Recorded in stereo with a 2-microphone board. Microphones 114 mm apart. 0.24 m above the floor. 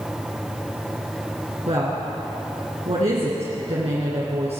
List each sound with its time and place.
1.7 s a woman speaking: 60° right (ahead or behind), 3 m